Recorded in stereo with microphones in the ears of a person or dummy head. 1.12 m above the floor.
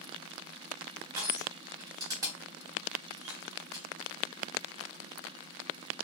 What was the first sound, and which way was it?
Crushing, 15° right (ahead or behind).